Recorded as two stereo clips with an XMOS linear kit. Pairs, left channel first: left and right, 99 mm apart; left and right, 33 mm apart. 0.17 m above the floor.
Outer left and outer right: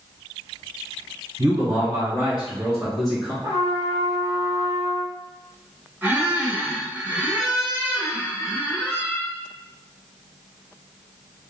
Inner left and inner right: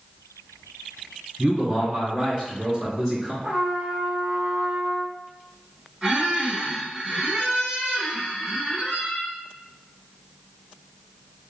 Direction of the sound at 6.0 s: 20° right (ahead or behind).